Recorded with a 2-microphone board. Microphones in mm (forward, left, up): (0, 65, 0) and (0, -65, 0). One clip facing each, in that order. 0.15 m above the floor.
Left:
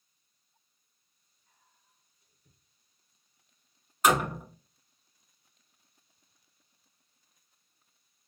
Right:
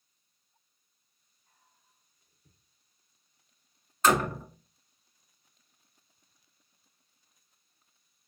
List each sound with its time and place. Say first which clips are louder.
1.5 s whispering: right 1 dB; 25° right (ahead or behind), 1.1 m
4.0 s a door slam: even; 15° left (ahead or behind), 1.1 m